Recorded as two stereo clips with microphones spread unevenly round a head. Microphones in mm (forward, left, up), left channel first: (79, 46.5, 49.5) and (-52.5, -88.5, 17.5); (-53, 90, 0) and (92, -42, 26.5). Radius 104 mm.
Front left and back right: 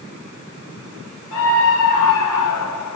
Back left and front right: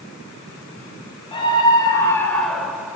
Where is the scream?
70° left, 4.5 m; by 3.0 s 40° left, 3.5 m.